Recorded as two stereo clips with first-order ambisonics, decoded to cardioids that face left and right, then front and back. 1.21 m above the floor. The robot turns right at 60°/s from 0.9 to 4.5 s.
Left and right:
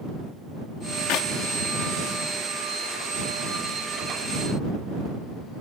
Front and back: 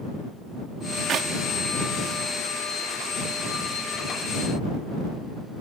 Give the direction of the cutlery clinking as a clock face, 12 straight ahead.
No cutlery clinking in this recording.